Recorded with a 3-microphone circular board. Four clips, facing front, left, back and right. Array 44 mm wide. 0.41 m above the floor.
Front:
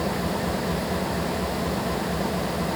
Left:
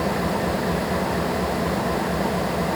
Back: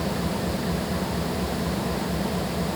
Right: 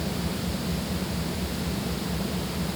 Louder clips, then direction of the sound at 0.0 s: Left 8 dB, front 1 dB; 80° left.